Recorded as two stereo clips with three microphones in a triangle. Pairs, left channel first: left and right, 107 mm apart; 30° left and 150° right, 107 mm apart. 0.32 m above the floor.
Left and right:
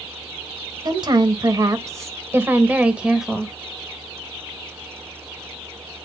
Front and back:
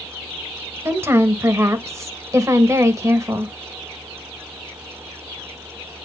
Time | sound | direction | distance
0.8 | a woman speaking | 95° right | 1.7 m